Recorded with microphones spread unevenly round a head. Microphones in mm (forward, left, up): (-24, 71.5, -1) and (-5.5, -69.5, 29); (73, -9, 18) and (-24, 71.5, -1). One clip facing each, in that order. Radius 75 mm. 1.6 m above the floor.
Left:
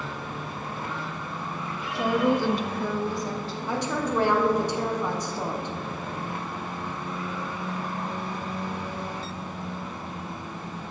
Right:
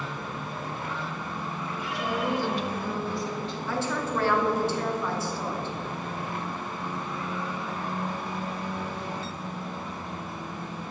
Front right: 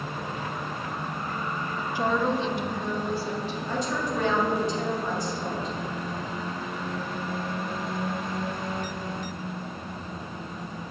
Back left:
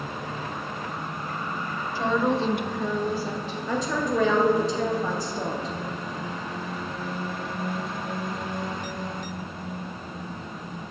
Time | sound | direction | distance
1.9 | a woman speaking | 35° left | 0.8 m
3.7 | a woman speaking | 170° left | 1.3 m